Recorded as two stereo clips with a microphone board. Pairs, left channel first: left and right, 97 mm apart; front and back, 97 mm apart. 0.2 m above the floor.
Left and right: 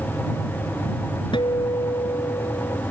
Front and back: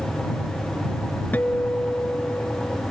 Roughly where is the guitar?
Left.